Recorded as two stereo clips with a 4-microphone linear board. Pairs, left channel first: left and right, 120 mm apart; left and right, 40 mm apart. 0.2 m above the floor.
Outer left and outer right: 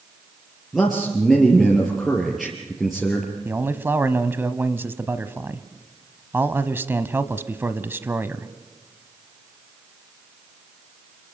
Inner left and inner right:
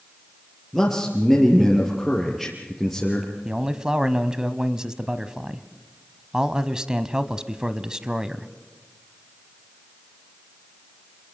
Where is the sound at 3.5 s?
20° right (ahead or behind), 1.0 m.